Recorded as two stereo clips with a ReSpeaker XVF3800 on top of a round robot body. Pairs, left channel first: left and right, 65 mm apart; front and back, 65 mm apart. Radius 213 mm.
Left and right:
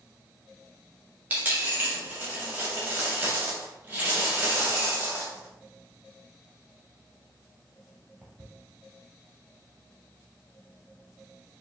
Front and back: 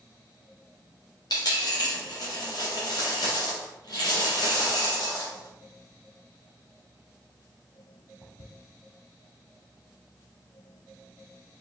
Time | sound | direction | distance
1.3 | a dropped coin | 25° right | 0.6 m